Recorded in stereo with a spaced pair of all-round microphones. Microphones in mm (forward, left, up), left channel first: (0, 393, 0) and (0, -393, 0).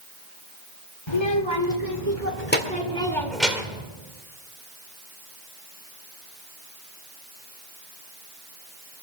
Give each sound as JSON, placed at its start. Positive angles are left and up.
{"t": 1.1, "sound": "a child speaking", "side_deg": 35, "distance_m": 1.8}